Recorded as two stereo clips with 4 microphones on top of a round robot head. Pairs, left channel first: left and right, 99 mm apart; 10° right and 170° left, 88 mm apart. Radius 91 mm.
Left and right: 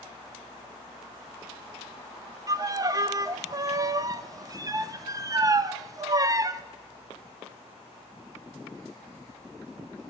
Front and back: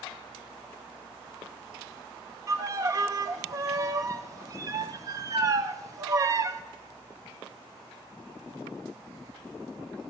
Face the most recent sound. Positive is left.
turn(degrees=-140)